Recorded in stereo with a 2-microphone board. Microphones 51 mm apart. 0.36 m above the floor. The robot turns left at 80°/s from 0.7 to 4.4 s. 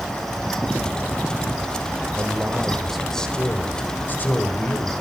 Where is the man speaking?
120° right, 1.4 m; by 4.9 s 65° left, 1.4 m.